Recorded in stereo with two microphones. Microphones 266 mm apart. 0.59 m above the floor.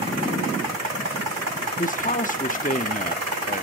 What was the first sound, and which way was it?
A man speaking, 30° left (ahead or behind).